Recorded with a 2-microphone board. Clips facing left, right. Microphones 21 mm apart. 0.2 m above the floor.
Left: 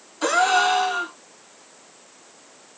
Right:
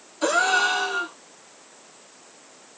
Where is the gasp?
20° left (ahead or behind), 1.3 m.